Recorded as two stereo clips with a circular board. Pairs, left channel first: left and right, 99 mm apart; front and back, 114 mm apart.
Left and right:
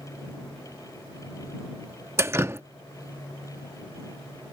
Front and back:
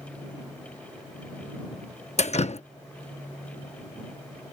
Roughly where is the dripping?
Ahead right.